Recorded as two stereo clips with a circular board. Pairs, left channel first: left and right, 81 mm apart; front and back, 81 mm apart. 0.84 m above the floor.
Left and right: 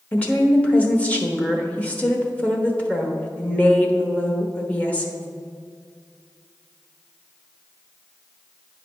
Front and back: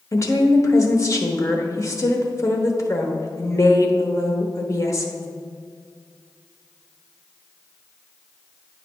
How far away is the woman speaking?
About 1.0 m.